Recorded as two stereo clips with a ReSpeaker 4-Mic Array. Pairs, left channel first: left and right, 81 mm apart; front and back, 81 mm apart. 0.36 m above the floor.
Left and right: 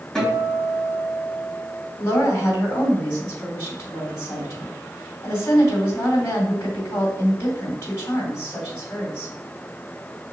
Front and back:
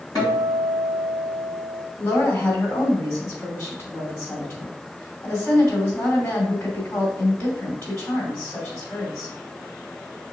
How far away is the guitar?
About 2.5 m.